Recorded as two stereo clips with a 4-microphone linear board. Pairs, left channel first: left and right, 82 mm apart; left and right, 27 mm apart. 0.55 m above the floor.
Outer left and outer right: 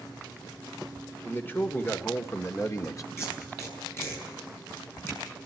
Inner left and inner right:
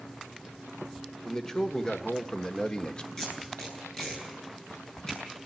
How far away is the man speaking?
About 2.0 m.